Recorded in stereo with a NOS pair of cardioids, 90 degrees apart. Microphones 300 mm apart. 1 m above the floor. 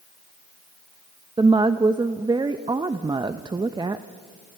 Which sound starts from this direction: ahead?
A woman speaking, at 1.4 s.